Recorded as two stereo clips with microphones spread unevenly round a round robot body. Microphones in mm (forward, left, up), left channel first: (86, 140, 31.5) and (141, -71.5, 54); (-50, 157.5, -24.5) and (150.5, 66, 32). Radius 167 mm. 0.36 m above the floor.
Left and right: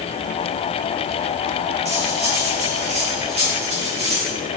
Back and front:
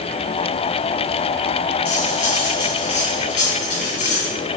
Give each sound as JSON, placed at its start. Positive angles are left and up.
{"t": 1.9, "sound": "cutlery clinking", "azimuth_deg": -145, "distance_m": 2.5}